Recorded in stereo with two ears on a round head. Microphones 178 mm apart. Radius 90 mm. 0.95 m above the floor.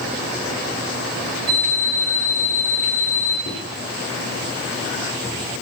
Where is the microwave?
40° left (ahead or behind), 0.9 m.